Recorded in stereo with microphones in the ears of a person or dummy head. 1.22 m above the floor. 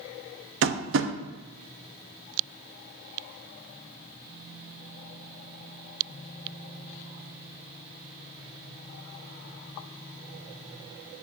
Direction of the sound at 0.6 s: 65° right (ahead or behind).